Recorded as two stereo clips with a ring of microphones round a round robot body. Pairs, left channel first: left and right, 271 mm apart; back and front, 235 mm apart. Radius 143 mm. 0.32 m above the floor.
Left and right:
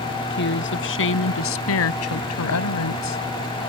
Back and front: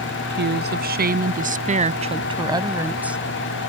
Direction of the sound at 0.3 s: 40° left.